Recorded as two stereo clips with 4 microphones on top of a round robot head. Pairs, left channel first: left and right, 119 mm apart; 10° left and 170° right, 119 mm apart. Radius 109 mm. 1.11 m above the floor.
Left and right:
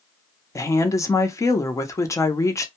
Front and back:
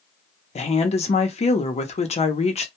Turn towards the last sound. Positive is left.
turn(degrees=25)